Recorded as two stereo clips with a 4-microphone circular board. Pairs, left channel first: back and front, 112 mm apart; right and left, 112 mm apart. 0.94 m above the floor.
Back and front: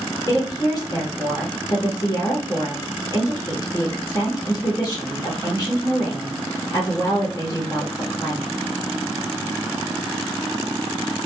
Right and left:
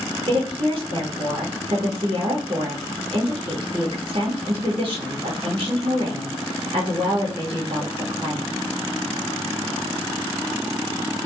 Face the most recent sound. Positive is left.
turn(degrees=120)